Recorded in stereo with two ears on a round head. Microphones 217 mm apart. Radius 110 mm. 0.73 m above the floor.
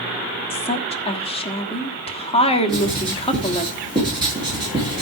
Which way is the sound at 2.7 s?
15° right (ahead or behind).